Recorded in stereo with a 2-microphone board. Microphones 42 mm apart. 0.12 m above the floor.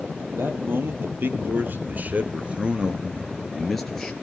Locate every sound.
0.2 s a man speaking: 70° right (ahead or behind), 3.5 m; by 4.1 s 15° left (ahead or behind), 2 m